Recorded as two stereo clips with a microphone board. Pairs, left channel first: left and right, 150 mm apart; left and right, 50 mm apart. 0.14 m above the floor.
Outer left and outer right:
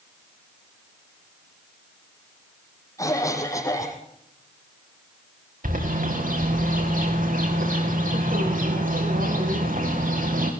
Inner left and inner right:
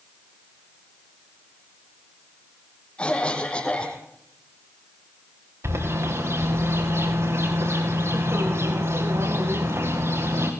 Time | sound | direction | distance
3.0 | a cough | 25° left (ahead or behind) | 5 m
5.6 | a bird | 75° right (ahead or behind) | 5.5 m